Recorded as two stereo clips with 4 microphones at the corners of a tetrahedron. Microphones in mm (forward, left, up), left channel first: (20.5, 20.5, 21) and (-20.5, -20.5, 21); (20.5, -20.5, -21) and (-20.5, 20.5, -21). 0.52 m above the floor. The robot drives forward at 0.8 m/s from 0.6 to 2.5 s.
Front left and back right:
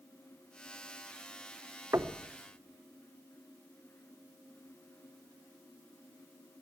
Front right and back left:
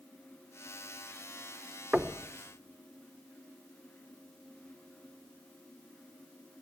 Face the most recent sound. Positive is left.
turn(degrees=-165)